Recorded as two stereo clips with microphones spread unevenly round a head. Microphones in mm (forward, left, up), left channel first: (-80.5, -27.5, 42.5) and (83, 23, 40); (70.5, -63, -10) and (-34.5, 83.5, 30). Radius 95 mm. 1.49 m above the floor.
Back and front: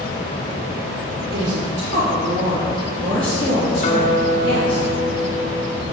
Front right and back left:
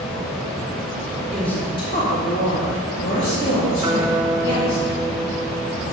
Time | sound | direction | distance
1.3 | a woman speaking | 35° left | 0.8 m
3.8 | a guitar | 170° left | 0.9 m